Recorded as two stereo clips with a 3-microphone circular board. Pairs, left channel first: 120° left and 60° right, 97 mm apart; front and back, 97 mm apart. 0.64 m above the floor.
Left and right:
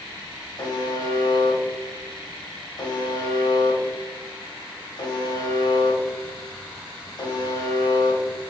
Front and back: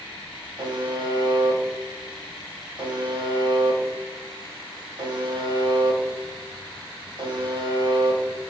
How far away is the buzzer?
About 0.6 m.